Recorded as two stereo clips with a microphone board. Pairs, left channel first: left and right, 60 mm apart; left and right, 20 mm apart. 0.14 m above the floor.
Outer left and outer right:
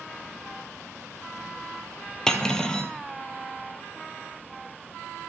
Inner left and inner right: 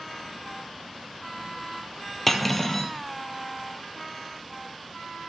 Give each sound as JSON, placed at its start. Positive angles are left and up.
{"t": 2.3, "sound": "cutlery clinking", "side_deg": 10, "distance_m": 2.0}